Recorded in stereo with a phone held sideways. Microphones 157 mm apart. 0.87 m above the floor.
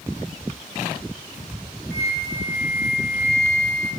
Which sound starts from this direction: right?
A flute, at 1.9 s.